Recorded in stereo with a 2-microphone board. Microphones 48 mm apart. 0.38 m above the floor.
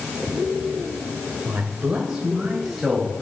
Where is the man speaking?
30° right (ahead or behind), 1.8 m; by 3.2 s 5° left (ahead or behind), 3 m.